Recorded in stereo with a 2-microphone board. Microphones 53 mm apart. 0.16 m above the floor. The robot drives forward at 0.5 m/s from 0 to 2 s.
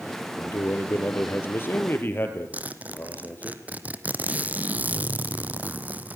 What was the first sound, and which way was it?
A man speaking, 55° left (ahead or behind).